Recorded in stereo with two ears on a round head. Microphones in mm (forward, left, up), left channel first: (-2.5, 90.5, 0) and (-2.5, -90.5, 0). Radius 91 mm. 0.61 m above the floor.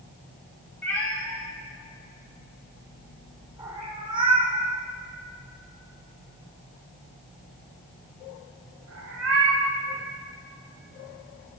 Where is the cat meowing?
10° left (ahead or behind), 4.5 m; by 9.7 s 75° right (ahead or behind), 4 m.